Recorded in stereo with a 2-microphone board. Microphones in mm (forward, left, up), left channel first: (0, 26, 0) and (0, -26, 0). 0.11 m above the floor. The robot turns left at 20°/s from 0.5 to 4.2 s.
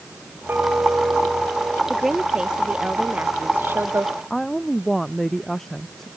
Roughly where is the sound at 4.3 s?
Centre.